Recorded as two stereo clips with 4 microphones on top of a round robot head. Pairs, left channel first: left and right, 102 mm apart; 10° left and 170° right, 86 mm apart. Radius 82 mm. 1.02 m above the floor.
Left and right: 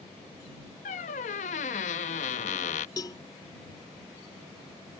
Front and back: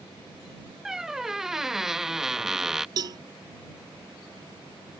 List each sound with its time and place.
0.8 s a squeak: 105° left
3.0 s a cowbell: 155° left